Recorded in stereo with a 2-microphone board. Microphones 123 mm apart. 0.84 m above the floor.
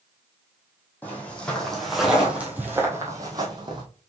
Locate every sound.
1.0 s footsteps: 15° left (ahead or behind), 2 m; by 3.8 s 40° right (ahead or behind), 1.8 m